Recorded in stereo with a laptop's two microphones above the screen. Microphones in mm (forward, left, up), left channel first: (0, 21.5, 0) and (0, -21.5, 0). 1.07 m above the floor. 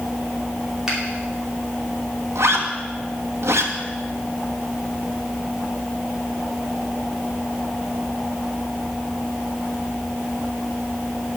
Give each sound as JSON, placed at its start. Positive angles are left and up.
{"t": 0.9, "sound": "a finger snap", "side_deg": -10, "distance_m": 2.5}
{"t": 2.4, "sound": "a zipper", "side_deg": -80, "distance_m": 1.4}